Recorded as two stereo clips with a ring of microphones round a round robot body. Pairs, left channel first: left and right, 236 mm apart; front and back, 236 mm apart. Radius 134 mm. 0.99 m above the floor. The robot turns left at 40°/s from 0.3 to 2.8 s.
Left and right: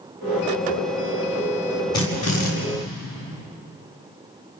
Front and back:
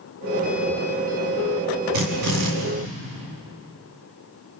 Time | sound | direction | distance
1.9 | a drill | 165° left | 6.5 m